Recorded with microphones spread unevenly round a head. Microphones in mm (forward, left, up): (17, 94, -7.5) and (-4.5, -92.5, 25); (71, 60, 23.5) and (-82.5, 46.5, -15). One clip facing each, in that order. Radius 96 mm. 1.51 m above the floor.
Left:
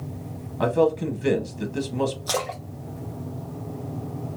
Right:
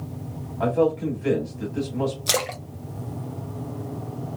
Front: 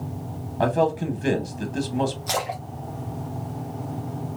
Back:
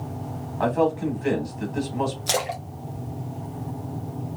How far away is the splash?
About 0.7 m.